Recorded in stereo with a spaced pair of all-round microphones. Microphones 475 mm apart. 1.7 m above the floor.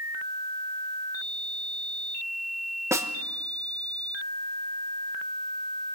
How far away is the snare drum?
About 1.1 m.